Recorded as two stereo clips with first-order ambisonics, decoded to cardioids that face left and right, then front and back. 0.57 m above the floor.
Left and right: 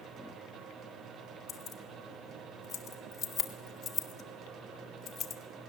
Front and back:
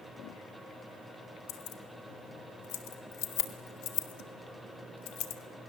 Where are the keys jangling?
15° left, 1.7 m.